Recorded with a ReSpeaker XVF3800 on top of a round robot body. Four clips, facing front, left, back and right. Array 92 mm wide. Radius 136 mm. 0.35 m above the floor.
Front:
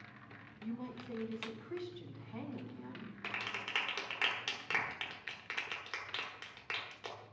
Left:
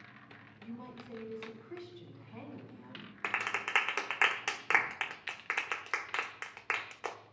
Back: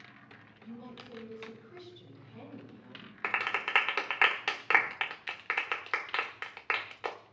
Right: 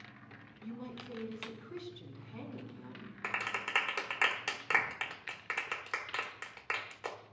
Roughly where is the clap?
Behind left.